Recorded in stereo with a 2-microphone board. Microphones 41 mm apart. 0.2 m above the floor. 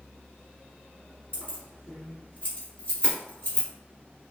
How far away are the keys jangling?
About 1.4 m.